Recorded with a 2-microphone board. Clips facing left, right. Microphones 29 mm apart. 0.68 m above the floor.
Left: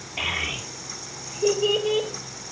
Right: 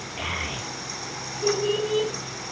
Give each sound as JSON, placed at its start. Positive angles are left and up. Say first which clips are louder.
{"t": 0.2, "sound": "a child speaking", "louder": "left 4 dB", "side_deg": 30, "distance_m": 7.5}